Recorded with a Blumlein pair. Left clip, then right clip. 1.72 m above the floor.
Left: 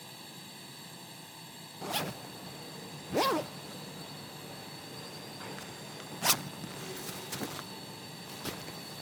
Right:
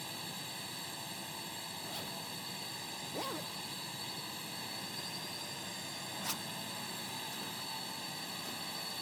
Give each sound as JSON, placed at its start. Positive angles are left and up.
{"t": 0.0, "sound": "a drone", "azimuth_deg": -15}
{"t": 1.8, "sound": "a zipper", "azimuth_deg": 55}